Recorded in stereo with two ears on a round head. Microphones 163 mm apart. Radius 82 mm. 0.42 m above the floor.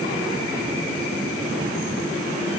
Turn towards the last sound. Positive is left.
No sound to turn to.